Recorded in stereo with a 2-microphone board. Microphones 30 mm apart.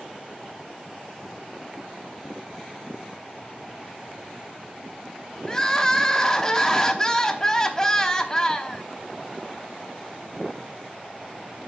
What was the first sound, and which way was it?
Crying, 20° left (ahead or behind).